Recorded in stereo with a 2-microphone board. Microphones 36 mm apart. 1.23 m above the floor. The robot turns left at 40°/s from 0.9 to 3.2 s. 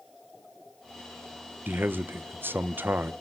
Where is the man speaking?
65° right, 0.5 m; by 3.1 s 120° right, 0.5 m.